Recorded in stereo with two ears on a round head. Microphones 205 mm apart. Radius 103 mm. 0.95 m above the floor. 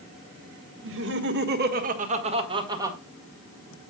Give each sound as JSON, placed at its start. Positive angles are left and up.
{"t": 0.8, "sound": "laughter", "side_deg": -55, "distance_m": 1.7}